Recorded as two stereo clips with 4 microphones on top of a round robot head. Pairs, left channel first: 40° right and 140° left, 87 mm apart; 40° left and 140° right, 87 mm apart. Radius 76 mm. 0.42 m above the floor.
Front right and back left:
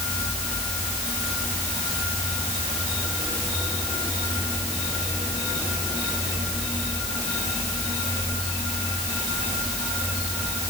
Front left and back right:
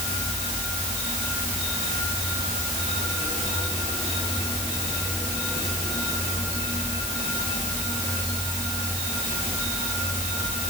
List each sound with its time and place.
Only background noise.